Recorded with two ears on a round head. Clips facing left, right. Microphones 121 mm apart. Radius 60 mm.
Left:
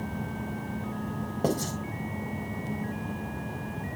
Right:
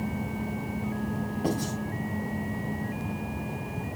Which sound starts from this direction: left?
Writing, at 1.4 s.